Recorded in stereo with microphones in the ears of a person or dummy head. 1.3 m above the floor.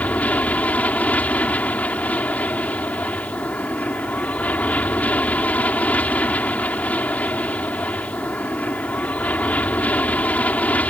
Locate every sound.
0.0 s an aircraft: 10° left (ahead or behind)